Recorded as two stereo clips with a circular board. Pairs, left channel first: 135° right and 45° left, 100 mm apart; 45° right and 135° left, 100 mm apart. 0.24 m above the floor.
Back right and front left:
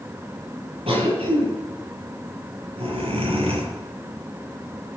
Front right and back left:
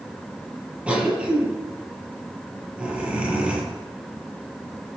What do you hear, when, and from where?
0.9 s a cough: 55° left, 7.5 m